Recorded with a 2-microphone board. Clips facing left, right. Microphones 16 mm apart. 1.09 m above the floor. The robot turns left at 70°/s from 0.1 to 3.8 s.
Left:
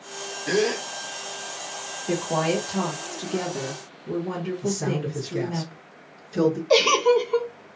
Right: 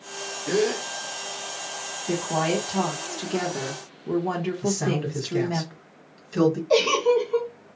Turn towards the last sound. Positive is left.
turn(degrees=25)  # may be behind; listen again after turning